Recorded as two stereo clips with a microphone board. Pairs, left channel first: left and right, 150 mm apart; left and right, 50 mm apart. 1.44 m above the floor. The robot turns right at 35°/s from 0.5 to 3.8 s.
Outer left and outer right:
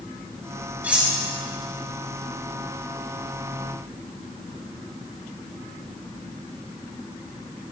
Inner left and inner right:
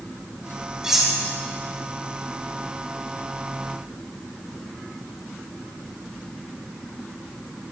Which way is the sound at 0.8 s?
10° right (ahead or behind).